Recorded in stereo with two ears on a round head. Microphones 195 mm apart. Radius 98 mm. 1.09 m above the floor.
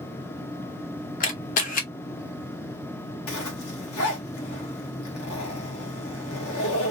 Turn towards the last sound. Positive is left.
turn(degrees=75)  # may be behind; listen again after turning